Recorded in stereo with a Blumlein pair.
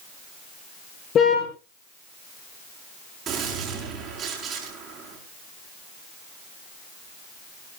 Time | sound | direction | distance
1.1 | a car horn | 30° left | 7 m
3.3 | a gunshot | 25° right | 6.5 m